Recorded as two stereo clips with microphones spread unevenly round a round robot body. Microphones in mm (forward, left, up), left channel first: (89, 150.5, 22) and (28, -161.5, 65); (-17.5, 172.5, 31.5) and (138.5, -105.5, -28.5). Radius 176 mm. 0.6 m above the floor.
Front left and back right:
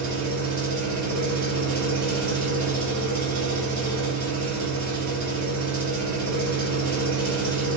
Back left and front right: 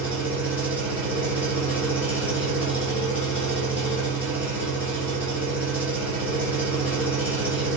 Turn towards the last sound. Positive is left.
turn(degrees=-140)